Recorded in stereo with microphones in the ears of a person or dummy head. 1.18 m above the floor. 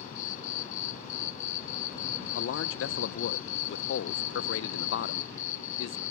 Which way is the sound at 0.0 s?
45° left (ahead or behind).